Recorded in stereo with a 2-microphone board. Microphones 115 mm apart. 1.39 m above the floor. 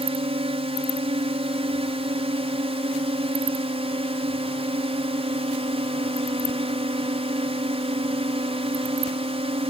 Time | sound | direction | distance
0.0 | a drone | 55° right (ahead or behind) | ?